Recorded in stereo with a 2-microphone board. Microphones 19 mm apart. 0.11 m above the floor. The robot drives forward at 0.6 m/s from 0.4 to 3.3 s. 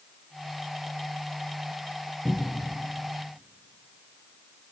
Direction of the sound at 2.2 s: 25° right (ahead or behind).